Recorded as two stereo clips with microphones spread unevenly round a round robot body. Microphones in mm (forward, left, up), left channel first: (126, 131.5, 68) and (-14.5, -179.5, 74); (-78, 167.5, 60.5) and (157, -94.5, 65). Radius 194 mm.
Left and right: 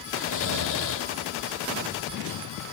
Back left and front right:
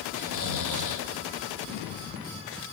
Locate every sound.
0.1 s snoring: 110° left, 1.3 m